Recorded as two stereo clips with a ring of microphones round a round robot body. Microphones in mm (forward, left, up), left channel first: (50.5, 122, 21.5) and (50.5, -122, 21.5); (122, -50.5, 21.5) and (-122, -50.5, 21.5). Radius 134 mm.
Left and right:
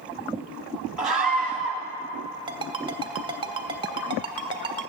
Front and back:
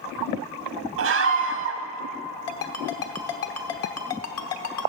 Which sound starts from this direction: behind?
A scream, at 1.0 s.